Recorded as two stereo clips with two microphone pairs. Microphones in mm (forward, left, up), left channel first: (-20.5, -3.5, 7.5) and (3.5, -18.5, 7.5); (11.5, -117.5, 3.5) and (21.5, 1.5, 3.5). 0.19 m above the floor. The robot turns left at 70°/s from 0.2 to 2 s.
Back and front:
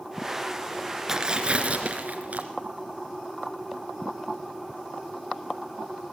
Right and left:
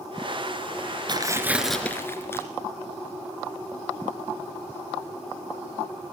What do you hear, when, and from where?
1.1 s tearing paper: 40° left, 2.5 m; by 2.4 s 25° right, 2.5 m